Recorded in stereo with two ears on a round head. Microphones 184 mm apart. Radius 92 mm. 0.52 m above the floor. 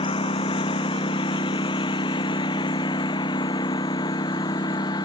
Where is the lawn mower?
25° left (ahead or behind); by 5.0 s 20° left (ahead or behind).